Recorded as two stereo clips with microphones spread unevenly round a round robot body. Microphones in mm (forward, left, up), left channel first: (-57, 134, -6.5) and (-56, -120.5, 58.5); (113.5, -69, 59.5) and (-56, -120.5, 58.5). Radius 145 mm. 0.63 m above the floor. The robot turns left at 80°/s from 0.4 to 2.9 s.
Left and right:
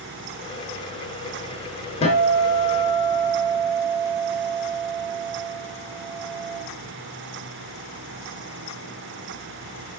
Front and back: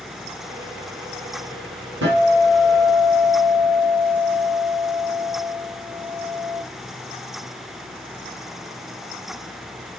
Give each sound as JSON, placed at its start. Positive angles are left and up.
{"t": 2.0, "sound": "a guitar", "azimuth_deg": 160, "distance_m": 3.0}